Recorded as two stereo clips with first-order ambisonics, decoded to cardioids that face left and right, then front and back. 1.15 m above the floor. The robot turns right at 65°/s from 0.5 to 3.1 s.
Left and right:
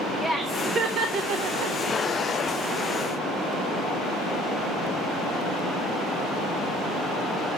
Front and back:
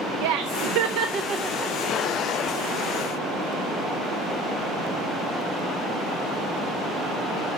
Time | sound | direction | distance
0.2 | laughter | 175° right | 0.7 m